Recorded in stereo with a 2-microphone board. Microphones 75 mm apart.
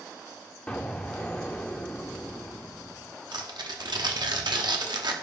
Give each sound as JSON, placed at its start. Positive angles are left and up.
{"t": 0.7, "sound": "an explosion", "side_deg": 15, "distance_m": 0.8}
{"t": 3.3, "sound": "tearing paper", "side_deg": -70, "distance_m": 1.0}